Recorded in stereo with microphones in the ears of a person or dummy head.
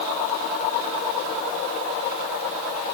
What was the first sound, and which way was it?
Only background noise.